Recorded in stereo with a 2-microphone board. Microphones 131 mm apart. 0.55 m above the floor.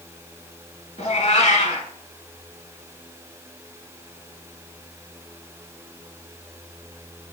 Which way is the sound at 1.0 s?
55° left (ahead or behind).